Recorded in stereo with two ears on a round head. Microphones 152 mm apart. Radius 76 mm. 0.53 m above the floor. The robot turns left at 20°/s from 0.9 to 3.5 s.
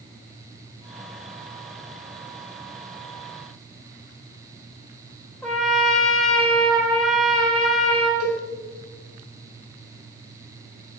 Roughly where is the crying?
No crying in this recording.